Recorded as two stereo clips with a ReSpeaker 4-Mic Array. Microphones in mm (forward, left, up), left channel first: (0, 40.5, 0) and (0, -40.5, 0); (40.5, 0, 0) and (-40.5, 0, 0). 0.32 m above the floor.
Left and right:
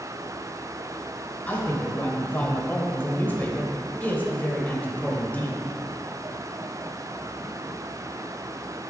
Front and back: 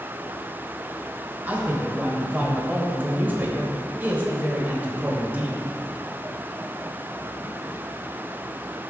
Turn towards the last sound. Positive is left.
turn(degrees=135)